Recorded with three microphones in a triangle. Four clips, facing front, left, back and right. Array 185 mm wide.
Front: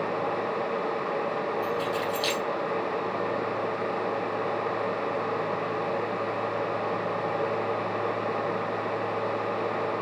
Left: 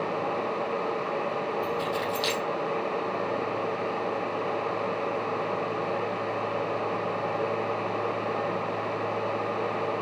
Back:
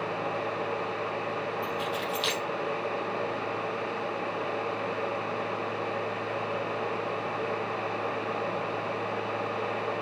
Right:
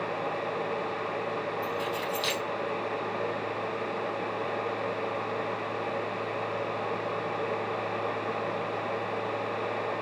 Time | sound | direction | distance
1.6 | keys jangling | 110° left | 4.5 m